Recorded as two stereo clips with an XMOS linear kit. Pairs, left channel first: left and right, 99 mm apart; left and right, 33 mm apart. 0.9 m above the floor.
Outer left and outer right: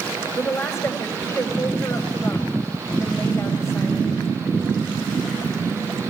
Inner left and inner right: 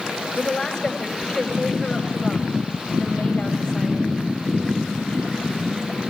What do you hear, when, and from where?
0.3 s a woman speaking: 30° left (ahead or behind), 5 m